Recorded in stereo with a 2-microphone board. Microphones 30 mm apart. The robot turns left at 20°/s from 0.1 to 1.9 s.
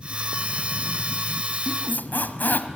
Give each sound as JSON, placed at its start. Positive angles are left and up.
{"t": 1.7, "sound": "a squeak", "side_deg": 75, "distance_m": 1.5}